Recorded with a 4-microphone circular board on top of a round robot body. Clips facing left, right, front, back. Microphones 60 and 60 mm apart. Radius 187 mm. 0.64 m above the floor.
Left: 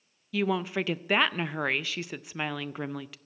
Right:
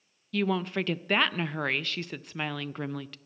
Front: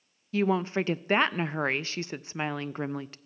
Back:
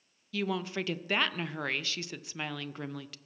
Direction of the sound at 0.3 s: 10° left.